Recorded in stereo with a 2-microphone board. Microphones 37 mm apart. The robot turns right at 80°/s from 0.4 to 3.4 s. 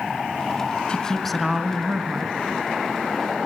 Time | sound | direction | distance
0.9 | a woman speaking | 140° left | 1.4 m